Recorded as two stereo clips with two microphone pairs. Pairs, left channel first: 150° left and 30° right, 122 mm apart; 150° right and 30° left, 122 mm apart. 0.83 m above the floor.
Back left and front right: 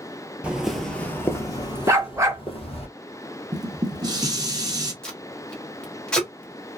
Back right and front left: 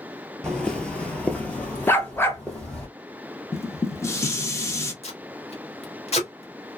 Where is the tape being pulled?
130° right, 1.1 m.